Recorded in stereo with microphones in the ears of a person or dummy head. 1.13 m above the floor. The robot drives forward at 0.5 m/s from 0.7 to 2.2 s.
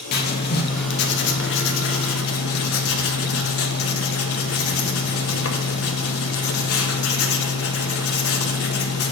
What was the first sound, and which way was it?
Writing, 55° left (ahead or behind).